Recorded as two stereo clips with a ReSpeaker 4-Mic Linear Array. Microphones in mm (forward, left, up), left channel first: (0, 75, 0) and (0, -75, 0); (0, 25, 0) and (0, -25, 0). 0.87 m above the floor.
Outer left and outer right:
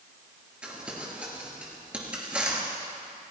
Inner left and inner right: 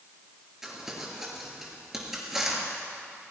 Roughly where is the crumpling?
Centre.